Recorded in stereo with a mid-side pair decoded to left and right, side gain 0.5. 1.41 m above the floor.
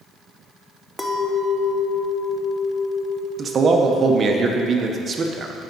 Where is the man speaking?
40° right, 1.0 m.